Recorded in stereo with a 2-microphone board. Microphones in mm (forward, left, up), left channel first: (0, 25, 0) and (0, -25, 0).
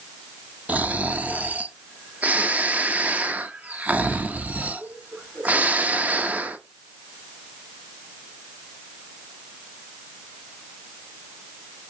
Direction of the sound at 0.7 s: 30° right (ahead or behind).